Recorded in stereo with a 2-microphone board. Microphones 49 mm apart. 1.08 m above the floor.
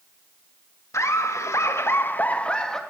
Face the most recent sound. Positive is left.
turn(degrees=15)  # may be behind; listen again after turning